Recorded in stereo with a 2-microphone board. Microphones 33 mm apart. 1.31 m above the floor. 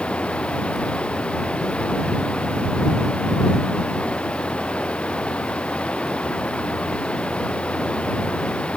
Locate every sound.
0.0 s running water: 40° left (ahead or behind)